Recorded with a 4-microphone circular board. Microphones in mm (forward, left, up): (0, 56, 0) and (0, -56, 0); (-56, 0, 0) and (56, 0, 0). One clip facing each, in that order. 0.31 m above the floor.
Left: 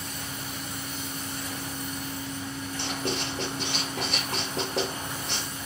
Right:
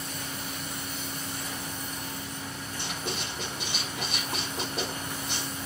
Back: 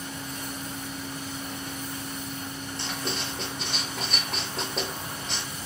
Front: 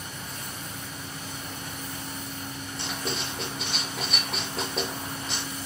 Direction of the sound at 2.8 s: 90° left.